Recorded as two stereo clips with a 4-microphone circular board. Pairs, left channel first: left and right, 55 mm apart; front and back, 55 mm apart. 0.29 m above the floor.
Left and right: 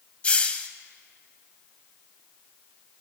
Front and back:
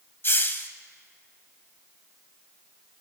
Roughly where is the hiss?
Ahead left.